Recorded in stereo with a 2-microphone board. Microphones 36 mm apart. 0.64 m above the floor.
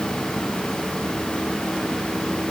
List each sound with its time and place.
Only background noise.